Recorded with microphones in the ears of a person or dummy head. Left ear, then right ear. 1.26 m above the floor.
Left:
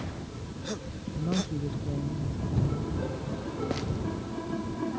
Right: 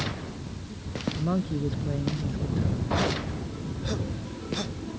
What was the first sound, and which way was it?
A woman speaking, 30° right (ahead or behind).